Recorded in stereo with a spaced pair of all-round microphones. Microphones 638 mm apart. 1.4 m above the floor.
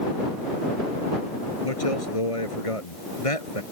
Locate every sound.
1.6 s a man speaking: 55° left (ahead or behind)